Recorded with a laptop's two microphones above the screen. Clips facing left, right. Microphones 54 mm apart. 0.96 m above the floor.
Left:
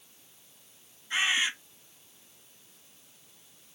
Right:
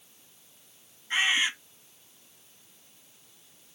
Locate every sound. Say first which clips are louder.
1.1 s a bird: right 2 dB; 35° right (ahead or behind), 4 m